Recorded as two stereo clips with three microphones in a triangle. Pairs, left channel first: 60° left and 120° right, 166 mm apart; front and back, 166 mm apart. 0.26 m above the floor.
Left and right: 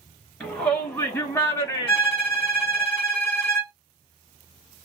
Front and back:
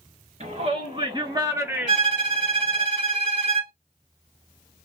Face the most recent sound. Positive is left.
turn(degrees=155)